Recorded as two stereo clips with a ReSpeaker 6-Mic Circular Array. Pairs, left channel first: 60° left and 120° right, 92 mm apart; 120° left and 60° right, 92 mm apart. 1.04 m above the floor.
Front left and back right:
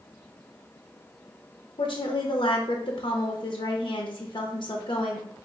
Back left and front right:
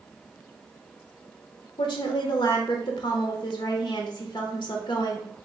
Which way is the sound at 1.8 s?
90° left.